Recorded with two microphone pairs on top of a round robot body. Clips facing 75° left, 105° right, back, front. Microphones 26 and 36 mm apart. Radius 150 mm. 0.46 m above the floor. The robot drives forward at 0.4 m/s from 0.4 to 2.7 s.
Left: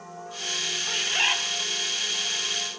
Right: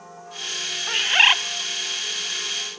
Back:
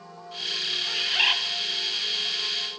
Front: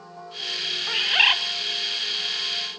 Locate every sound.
0.9 s a bird: 50° right, 0.6 m; by 1.4 s 70° right, 0.5 m